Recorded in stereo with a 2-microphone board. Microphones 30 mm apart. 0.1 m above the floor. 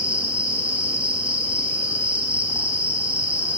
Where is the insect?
40° right (ahead or behind), 6.5 m.